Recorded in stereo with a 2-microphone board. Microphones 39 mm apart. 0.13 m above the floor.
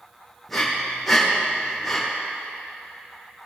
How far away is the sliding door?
No sliding door in this recording.